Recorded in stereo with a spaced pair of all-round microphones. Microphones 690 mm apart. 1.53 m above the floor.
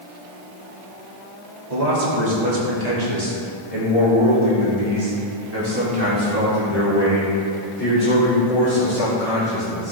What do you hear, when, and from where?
1.7 s a man speaking: 80° right, 3 m; by 9.9 s 5° right (ahead or behind), 5.5 m